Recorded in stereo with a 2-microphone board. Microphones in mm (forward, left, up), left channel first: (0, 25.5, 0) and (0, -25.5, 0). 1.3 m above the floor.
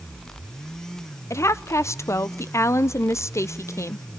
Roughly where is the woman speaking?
Left.